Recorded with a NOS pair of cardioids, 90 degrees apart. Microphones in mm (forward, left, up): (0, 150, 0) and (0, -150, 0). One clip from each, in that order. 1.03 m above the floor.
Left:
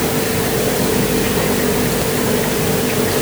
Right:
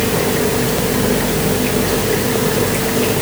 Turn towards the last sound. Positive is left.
No sound to turn to.